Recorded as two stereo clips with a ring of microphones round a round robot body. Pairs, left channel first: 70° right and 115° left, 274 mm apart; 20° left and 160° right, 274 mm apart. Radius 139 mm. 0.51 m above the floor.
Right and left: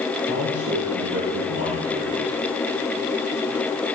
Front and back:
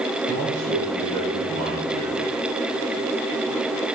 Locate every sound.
0.2 s a man speaking: 155° left, 6.5 m